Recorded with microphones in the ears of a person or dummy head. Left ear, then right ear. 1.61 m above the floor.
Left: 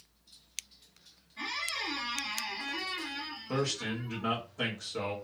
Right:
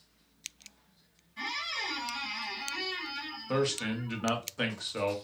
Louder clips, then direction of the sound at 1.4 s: Right 1 dB; 15° right (ahead or behind).